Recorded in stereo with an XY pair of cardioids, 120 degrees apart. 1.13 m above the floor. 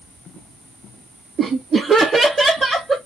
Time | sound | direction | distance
1.4 | laughter | 45° right | 0.7 m